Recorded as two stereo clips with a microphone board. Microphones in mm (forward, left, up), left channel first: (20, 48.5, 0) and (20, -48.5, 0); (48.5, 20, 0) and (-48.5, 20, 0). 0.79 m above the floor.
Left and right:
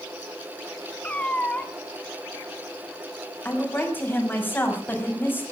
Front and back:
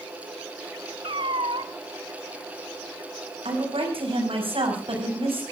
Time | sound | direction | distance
1.0 | a cat meowing | 165° left | 1.0 m
3.5 | a woman speaking | 160° left | 6 m